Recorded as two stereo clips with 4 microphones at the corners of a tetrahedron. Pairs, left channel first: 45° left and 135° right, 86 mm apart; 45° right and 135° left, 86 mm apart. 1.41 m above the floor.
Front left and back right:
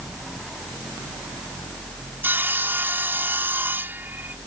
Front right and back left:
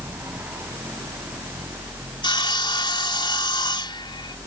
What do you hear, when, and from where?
2.2 s sawing: 70° right